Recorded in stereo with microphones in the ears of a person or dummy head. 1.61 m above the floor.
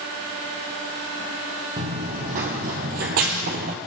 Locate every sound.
1.8 s running footsteps: 35° right (ahead or behind), 4 m